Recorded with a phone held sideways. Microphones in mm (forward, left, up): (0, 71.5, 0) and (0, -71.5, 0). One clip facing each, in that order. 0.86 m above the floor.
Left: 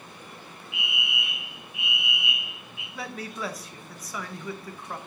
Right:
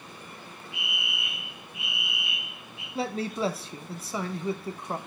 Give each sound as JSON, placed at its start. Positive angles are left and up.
{"t": 0.7, "sound": "a fire alarm", "side_deg": -40, "distance_m": 1.6}
{"t": 3.0, "sound": "a man speaking", "side_deg": -30, "distance_m": 0.6}